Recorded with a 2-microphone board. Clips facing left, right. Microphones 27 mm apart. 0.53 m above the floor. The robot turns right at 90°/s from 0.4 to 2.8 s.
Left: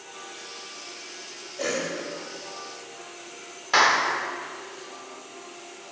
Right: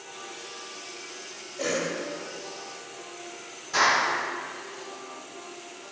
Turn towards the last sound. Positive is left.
turn(degrees=55)  # may be behind; listen again after turning